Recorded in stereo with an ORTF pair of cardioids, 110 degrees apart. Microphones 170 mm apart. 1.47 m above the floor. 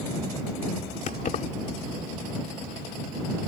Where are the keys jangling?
50° left.